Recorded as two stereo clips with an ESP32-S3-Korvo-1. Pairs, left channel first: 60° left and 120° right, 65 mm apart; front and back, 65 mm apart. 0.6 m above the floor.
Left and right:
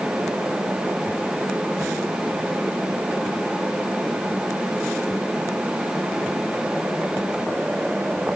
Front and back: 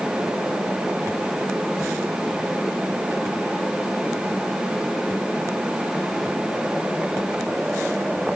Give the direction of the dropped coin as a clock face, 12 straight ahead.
I don't hear a dropped coin.